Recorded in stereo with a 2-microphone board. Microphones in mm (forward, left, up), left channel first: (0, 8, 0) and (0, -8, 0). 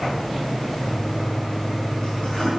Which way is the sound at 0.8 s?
35° left (ahead or behind).